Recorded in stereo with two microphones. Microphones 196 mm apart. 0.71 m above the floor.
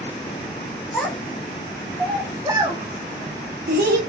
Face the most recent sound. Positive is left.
turn(degrees=-55)  # may be behind; listen again after turning